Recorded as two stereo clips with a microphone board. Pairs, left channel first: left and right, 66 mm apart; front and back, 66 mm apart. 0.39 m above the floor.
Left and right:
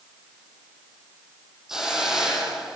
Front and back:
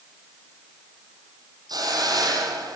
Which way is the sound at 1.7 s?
170° right.